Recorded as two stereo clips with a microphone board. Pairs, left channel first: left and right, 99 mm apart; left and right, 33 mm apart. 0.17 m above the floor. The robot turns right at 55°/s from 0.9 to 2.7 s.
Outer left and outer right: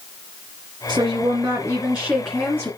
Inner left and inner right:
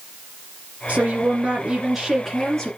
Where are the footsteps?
No footsteps in this recording.